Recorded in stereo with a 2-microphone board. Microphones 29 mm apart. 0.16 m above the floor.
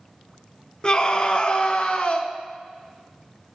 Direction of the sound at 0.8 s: 30° left (ahead or behind).